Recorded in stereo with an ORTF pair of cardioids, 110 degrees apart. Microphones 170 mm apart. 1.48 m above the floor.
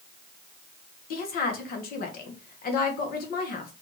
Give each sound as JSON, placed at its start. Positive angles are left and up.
{"t": 1.1, "sound": "a woman speaking", "azimuth_deg": 60, "distance_m": 1.3}